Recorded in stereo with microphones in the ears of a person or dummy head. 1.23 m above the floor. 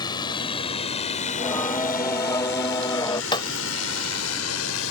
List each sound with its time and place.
0.0 s a drone: 15° left (ahead or behind); by 4.9 s 80° left
1.3 s singing: 10° left (ahead or behind)
3.3 s breaking glass: 25° left (ahead or behind)